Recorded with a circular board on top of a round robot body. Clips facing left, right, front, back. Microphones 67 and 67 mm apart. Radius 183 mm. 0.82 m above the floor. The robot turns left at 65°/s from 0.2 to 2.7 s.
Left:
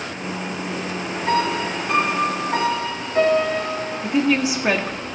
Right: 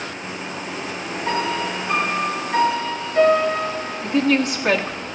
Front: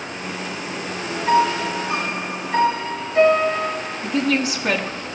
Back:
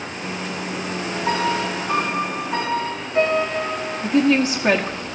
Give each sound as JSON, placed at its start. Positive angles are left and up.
{"t": 1.3, "sound": "a piano", "azimuth_deg": -150, "distance_m": 3.0}
{"t": 4.0, "sound": "a woman speaking", "azimuth_deg": 165, "distance_m": 1.1}